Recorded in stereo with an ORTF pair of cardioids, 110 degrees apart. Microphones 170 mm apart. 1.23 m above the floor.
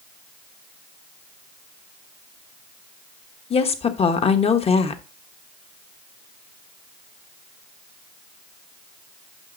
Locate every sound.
3.5 s a woman speaking: 35° left, 1.3 m